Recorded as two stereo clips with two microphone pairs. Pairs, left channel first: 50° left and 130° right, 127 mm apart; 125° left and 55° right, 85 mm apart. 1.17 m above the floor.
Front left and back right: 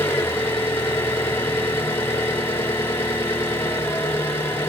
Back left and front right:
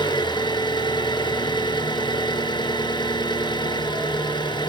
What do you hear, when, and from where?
0.0 s an engine running: 125° left, 3.5 m